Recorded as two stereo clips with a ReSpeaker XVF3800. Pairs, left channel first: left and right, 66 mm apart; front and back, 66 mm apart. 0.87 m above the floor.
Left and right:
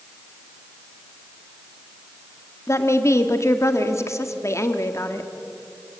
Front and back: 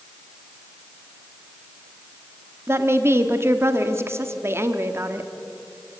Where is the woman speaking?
130° left, 1.5 m.